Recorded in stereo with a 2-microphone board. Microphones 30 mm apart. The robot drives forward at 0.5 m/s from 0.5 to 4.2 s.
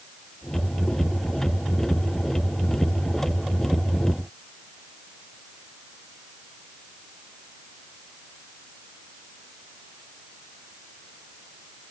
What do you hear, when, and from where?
Only background noise.